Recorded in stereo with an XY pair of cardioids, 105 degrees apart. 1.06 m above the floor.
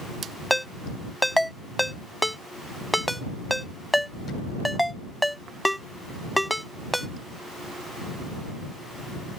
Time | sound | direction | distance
0.5 | a ringtone | straight ahead | ?